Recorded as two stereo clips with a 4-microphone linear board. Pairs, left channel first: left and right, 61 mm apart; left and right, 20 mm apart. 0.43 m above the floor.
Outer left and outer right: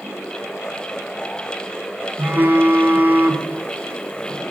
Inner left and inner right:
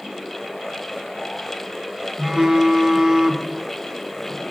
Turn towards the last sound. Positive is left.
turn(degrees=-35)  # may be behind; listen again after turning